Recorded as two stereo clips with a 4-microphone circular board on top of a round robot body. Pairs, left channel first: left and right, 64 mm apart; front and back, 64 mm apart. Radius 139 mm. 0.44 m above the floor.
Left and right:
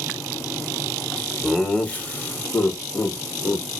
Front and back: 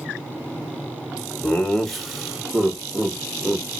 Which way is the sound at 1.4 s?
15° left.